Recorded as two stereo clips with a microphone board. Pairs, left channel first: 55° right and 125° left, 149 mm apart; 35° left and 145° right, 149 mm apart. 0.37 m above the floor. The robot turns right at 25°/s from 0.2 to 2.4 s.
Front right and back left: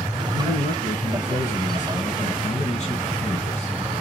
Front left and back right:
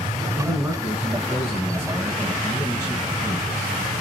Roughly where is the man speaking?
Right.